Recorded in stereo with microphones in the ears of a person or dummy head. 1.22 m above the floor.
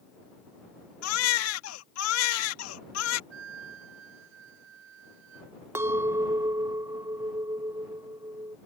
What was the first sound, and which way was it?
A baby crying, 85° left.